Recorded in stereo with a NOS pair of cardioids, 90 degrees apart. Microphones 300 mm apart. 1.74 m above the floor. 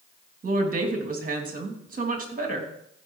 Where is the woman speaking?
30° right, 3 m.